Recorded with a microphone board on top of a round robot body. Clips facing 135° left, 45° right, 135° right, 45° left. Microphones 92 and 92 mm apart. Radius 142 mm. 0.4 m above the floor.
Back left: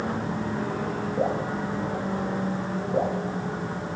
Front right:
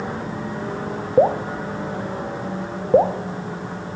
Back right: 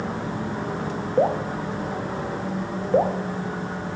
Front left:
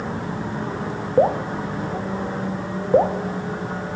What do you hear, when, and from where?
1.2 s dripping: 30° right, 0.9 m